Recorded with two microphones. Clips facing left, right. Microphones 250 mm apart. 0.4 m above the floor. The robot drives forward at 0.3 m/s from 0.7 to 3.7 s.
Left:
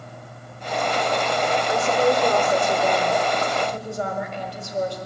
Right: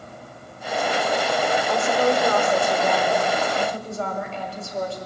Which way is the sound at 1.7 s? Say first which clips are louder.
Left 2 dB; 15° left (ahead or behind).